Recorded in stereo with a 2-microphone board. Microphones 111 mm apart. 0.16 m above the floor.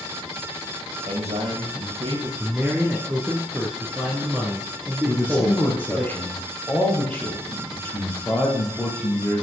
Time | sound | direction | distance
1.1 | a man speaking | 70° right (ahead or behind) | 4 m
2.4 | a man speaking | 15° right (ahead or behind) | 1.9 m
5.0 | a man speaking | 15° left (ahead or behind) | 4 m